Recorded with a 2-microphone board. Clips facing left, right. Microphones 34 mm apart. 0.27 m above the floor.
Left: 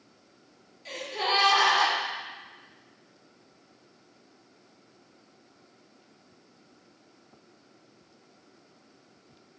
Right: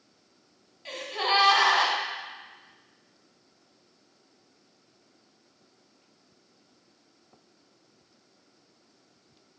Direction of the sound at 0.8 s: 20° right (ahead or behind).